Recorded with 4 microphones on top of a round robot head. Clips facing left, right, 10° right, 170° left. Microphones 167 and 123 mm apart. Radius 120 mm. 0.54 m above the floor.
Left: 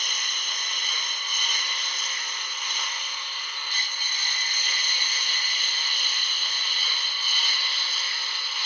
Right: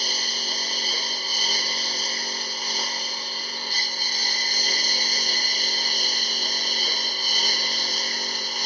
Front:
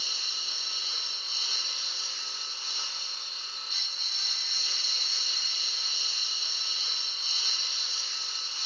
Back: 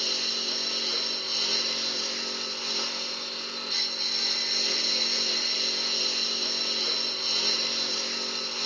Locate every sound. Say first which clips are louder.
0.0 s a lawn mower: right 7 dB, back 11 dB; 145° right; by 8.7 s 140° right